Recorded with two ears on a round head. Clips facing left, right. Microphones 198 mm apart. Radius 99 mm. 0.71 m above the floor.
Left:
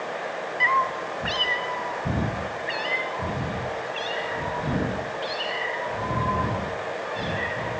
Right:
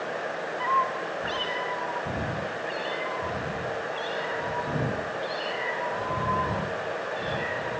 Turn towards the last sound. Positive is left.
turn(degrees=35)  # may be behind; listen again after turning